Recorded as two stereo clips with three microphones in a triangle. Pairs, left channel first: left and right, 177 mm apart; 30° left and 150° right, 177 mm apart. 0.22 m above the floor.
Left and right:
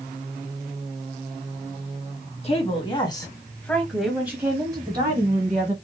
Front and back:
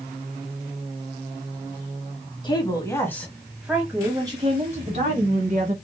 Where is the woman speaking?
75° left, 1.3 m; by 5.8 s 135° right, 1.7 m.